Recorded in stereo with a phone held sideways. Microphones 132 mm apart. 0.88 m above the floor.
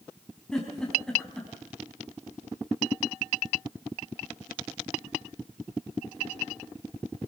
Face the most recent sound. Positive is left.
turn(degrees=5)  # may be behind; listen again after turning